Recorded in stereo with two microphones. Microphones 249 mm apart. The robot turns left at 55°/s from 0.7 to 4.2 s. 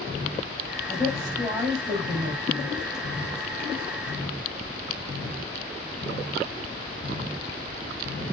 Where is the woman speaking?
25° left, 5 m; by 2.8 s 80° right, 5 m.